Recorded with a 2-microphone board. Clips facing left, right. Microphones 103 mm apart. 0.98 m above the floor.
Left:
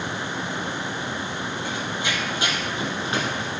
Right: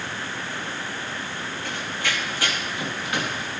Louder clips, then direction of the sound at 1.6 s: Even; 15° left (ahead or behind).